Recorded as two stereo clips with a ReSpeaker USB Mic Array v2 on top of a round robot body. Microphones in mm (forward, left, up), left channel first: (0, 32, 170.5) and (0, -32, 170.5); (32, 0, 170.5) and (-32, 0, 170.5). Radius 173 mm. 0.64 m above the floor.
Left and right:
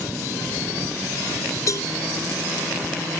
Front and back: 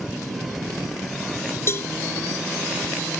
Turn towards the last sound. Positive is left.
turn(degrees=50)